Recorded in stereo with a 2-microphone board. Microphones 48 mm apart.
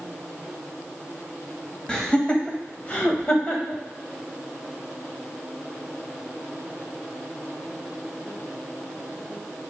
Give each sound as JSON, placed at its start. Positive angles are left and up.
{"t": 1.9, "sound": "laughter", "side_deg": 15, "distance_m": 1.6}